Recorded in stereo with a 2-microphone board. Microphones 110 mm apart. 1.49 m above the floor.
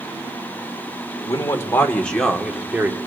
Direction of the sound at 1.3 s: 35° left (ahead or behind).